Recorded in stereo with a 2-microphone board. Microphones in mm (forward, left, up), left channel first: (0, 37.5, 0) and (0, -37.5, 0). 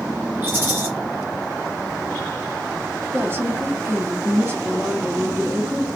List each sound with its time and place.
0.4 s a rattle: 30° right (ahead or behind), 1.7 m
3.1 s a woman speaking: 30° right (ahead or behind), 1.0 m